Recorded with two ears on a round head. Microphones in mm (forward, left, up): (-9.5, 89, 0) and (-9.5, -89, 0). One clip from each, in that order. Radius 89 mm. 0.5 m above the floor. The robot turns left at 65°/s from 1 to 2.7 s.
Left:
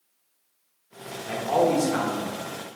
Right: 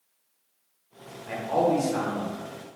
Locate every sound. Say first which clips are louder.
1.3 s a man speaking: left 2 dB; 150° left, 0.9 m; by 2.3 s 80° left, 0.9 m